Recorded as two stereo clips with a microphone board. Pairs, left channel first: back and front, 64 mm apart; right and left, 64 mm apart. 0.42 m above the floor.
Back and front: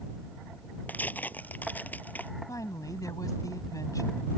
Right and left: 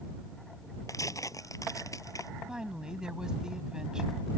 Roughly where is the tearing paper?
Behind right.